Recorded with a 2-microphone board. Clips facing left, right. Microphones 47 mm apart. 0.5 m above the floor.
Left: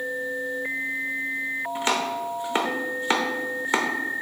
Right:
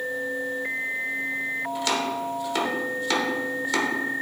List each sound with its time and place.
1.8 s chopping: 30° left (ahead or behind), 1.0 m